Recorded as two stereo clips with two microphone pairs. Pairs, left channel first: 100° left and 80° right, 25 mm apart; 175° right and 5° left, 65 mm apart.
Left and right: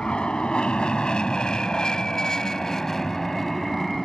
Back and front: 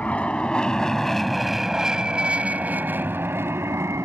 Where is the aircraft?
125° left; by 4.0 s 15° left.